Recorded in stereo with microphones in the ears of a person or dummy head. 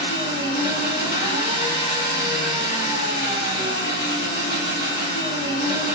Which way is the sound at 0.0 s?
50° left (ahead or behind).